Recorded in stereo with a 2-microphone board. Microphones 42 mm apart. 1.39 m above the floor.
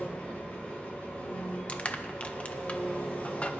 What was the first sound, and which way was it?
An engine running, 25° left (ahead or behind).